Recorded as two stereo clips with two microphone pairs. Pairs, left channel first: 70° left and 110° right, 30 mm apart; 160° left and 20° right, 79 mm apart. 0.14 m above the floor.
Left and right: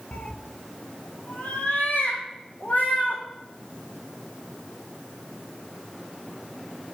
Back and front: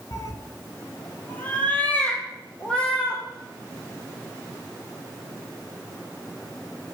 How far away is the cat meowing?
About 0.5 m.